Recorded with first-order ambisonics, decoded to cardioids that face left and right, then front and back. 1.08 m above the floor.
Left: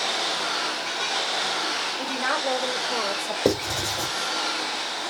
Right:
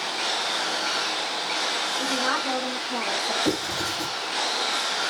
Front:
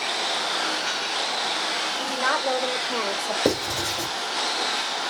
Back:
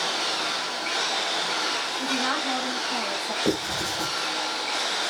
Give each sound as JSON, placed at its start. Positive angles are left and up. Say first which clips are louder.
{"t": 2.0, "sound": "a woman speaking", "louder": "right 1 dB, front 3 dB", "azimuth_deg": 35, "distance_m": 4.0}
{"t": 3.5, "sound": "writing", "louder": "left 2 dB, front 3 dB", "azimuth_deg": 45, "distance_m": 2.5}